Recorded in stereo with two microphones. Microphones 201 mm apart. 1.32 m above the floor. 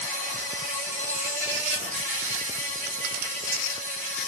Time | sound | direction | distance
0.0 | an insect | 40° right (ahead or behind) | 1.9 m